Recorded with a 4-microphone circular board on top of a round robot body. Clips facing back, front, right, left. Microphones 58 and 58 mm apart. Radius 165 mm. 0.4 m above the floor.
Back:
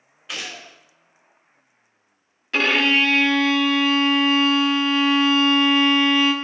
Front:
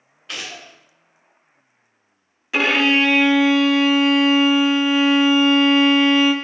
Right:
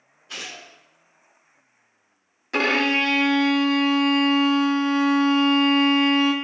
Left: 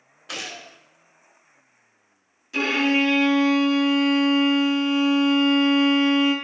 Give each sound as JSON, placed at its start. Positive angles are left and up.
{"t": 0.3, "sound": "a gunshot", "azimuth_deg": 95, "distance_m": 0.7}
{"t": 2.5, "sound": "a violin", "azimuth_deg": -80, "distance_m": 0.6}